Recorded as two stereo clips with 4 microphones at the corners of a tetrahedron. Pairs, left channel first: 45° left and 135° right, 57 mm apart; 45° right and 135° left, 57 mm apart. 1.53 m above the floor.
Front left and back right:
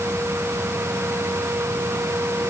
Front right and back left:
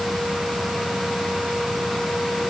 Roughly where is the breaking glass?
No breaking glass in this recording.